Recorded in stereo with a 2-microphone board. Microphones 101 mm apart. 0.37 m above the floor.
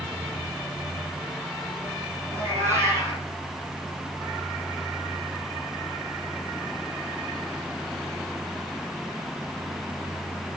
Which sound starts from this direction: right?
A cat meowing, at 2.3 s.